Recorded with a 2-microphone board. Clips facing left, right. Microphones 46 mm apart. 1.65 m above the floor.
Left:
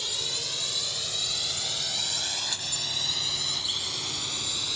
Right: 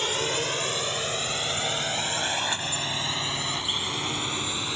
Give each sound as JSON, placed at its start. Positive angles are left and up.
{"t": 0.0, "sound": "a drone", "side_deg": -50}